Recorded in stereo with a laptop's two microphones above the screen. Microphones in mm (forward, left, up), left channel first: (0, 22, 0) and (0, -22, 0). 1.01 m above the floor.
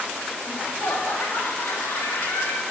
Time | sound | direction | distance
0.5 | laughter | 75° left (ahead or behind) | 1.9 m